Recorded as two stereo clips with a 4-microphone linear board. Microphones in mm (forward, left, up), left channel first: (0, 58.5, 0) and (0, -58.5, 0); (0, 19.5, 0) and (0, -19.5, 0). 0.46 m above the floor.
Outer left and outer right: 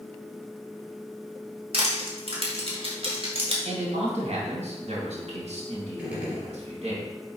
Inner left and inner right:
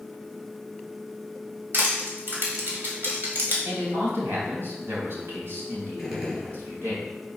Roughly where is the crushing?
Right.